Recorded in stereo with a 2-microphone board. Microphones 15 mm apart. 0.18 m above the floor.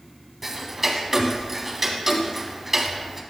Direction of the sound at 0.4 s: 15° right (ahead or behind).